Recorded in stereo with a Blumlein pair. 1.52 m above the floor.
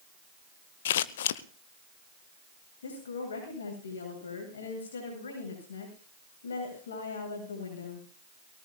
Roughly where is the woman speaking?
Ahead left.